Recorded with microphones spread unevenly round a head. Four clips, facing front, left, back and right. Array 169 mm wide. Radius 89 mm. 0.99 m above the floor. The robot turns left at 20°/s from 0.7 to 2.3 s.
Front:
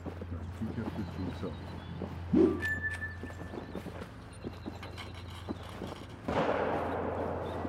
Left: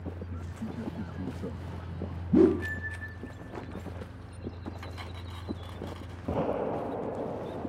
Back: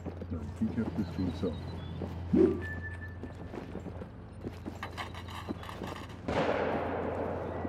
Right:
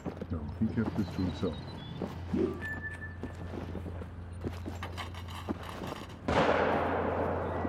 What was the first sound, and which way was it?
A man speaking, 145° right.